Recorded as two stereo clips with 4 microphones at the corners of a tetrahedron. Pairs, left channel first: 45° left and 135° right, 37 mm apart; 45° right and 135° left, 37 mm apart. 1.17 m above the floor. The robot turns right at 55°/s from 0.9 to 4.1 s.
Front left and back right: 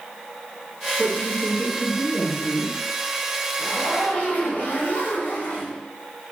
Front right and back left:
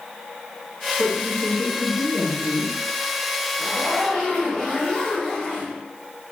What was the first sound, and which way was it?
A woman speaking, 160° right.